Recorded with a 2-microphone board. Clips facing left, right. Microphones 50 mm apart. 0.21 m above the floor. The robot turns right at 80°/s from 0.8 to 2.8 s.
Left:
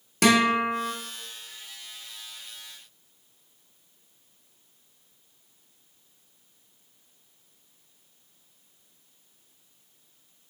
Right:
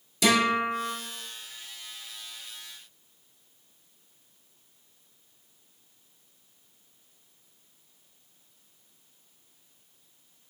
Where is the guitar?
60° left (ahead or behind), 0.8 m.